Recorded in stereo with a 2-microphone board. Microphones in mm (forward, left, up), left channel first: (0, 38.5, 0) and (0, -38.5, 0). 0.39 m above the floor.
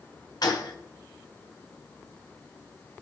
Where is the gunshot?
60° left (ahead or behind), 2 m.